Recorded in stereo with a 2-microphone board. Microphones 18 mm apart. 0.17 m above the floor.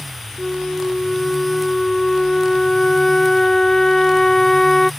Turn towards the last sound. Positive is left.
turn(degrees=25)  # may be behind; listen again after turning